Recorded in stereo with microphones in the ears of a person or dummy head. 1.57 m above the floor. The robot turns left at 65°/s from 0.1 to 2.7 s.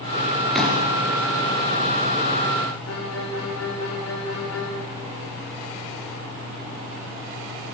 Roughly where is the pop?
Centre.